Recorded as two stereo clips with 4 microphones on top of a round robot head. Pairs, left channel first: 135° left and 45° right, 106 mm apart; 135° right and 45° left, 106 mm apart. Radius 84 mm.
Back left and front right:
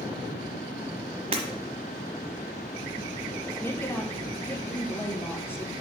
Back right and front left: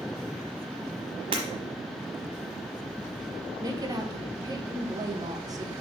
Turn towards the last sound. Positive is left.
turn(degrees=80)